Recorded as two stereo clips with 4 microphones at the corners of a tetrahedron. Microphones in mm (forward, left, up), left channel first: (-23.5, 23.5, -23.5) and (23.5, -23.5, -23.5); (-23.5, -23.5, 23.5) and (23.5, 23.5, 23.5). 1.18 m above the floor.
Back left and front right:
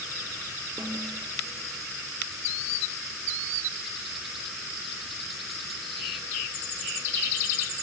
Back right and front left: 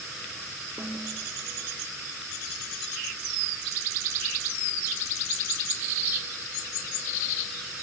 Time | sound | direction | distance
0.8 | a snare drum | 5° left | 2.5 m